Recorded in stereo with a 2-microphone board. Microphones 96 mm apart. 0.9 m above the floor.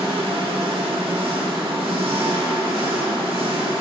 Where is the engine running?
70° right (ahead or behind), 1.5 m.